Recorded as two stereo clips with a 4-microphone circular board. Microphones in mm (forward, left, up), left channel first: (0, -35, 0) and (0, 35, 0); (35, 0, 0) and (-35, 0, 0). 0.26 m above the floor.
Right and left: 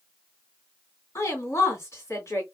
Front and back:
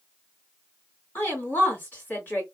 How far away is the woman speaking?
About 2.5 m.